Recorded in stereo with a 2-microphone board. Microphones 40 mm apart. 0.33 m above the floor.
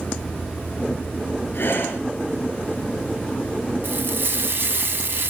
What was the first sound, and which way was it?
Breathing, 60° left (ahead or behind).